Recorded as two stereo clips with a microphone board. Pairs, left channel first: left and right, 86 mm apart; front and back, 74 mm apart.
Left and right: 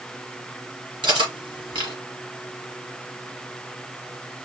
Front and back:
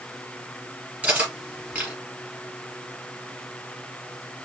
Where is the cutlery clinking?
105° right, 3 m.